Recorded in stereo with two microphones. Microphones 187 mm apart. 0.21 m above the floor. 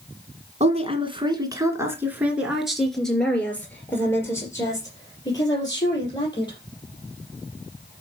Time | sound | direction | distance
0.6 | a woman speaking | 35° right (ahead or behind) | 2 m